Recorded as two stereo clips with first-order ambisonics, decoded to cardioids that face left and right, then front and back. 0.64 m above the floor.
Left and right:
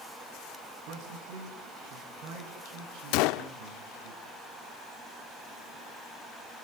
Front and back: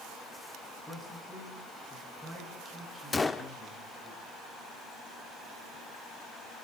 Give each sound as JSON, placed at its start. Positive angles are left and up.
{"t": 0.9, "sound": "a man speaking", "azimuth_deg": -80, "distance_m": 6.5}
{"t": 3.1, "sound": "a gunshot", "azimuth_deg": 75, "distance_m": 0.7}